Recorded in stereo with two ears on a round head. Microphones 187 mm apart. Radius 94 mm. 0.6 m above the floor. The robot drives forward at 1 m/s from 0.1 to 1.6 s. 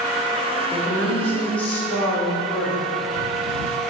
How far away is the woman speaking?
About 1.2 m.